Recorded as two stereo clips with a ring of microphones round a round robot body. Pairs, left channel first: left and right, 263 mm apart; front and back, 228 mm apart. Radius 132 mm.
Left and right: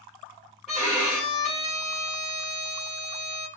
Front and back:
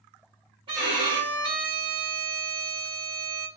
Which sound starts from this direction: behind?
A violin, at 0.7 s.